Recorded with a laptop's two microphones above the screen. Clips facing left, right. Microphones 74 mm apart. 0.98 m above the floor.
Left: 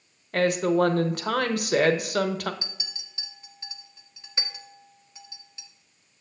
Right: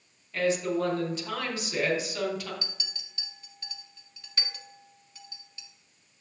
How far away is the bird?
I don't hear a bird.